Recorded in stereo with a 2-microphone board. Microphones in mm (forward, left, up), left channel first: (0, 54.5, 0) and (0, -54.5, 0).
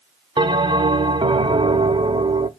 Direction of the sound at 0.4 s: 50° right (ahead or behind).